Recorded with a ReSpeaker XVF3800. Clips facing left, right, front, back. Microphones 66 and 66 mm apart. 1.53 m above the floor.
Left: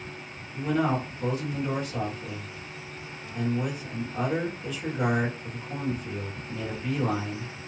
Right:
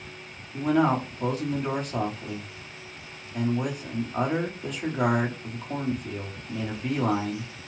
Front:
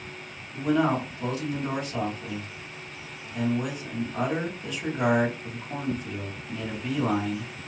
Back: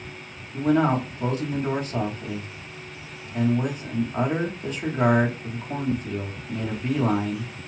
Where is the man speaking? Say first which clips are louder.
Right 4 dB, back 3 dB; 125° right, 1.3 m.